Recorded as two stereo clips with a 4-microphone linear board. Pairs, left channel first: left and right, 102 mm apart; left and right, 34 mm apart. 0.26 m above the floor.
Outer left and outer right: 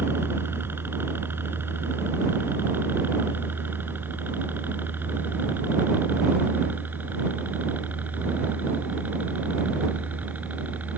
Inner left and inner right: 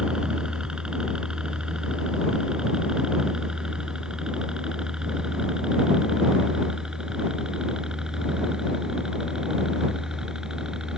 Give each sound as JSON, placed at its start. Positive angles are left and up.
{"t": 0.0, "sound": "a helicopter", "side_deg": -20}